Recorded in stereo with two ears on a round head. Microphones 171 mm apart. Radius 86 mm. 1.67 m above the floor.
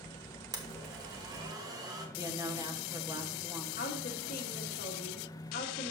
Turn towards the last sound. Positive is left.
turn(degrees=50)  # may be behind; listen again after turning